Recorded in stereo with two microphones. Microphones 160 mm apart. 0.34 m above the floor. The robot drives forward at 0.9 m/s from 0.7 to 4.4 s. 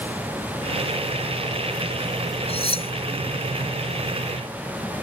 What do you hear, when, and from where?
2.5 s cutlery clinking: 35° left (ahead or behind)